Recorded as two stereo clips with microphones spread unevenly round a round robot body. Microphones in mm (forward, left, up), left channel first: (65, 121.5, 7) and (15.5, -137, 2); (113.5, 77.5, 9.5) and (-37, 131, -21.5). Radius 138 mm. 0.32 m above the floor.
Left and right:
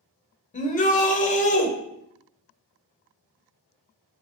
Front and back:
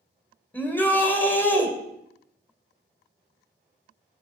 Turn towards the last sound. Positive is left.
turn(degrees=65)